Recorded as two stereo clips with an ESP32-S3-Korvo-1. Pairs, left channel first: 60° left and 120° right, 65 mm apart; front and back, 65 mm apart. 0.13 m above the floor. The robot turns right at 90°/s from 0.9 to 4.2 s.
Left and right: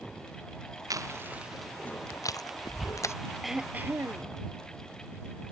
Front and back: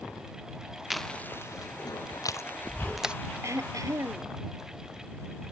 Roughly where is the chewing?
Right.